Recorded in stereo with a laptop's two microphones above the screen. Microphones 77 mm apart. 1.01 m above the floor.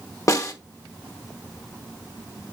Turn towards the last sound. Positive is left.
turn(degrees=45)  # may be behind; listen again after turning